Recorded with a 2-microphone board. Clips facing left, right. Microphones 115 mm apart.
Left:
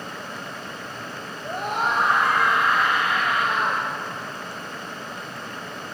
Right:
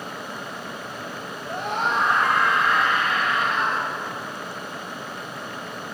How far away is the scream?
About 6 m.